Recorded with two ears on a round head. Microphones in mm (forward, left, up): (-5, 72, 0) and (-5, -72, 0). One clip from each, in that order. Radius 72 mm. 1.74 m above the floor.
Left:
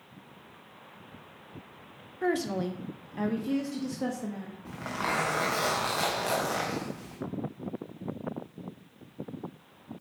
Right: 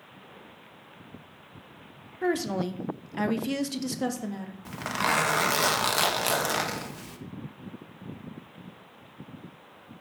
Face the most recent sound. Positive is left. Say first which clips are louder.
# right 5 dB
turn(degrees=-60)  # may be behind; listen again after turning